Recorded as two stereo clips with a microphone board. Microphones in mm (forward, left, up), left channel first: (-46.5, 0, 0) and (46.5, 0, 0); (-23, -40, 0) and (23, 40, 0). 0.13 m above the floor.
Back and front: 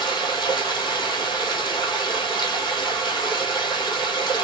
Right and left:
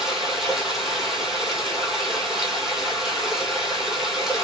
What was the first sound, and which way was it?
Running water, 145° left.